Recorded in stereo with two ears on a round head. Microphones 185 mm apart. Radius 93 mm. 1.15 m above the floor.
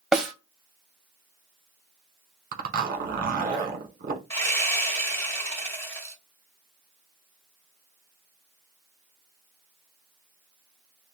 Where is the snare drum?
Centre (ahead or behind), 0.6 m.